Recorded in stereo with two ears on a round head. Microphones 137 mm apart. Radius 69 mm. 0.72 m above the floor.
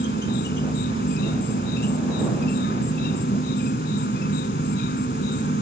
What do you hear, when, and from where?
0.0 s an insect: 65° left (ahead or behind)